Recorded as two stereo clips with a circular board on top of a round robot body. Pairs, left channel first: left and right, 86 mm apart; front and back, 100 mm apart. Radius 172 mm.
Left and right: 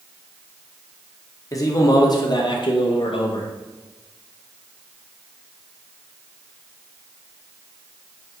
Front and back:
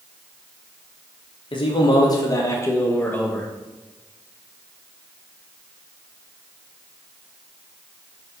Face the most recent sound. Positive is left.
turn(degrees=80)